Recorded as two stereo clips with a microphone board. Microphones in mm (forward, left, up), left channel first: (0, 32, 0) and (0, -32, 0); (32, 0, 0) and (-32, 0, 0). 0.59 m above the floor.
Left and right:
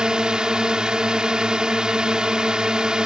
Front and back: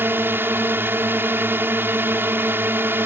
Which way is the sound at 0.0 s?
160° right.